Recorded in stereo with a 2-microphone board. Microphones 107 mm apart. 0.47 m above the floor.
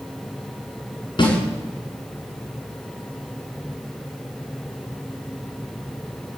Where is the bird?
No bird in this recording.